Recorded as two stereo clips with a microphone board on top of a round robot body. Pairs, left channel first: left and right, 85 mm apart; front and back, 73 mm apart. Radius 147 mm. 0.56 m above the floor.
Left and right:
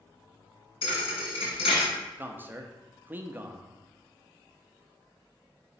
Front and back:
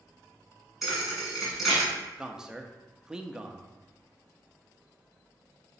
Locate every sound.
0.8 s a thud: 90° left, 2.0 m
2.2 s a man speaking: 115° right, 0.9 m